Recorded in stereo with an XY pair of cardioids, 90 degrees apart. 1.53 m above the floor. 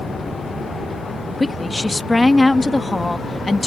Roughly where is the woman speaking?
Ahead left.